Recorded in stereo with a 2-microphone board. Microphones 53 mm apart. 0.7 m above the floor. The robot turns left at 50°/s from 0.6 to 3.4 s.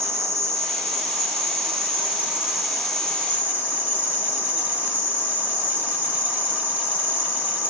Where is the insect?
75° right, 1.2 m; by 7.7 s 145° left, 1.2 m.